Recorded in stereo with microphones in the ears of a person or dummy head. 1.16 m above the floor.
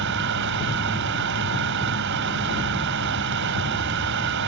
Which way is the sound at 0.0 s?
65° right (ahead or behind).